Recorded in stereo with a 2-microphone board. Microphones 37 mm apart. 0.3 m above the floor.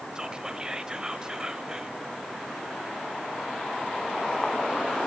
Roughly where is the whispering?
Centre.